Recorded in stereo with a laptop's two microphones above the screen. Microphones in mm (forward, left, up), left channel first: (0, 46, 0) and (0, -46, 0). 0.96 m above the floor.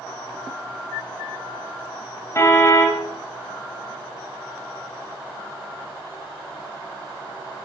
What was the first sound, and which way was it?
A car horn, 30° left (ahead or behind).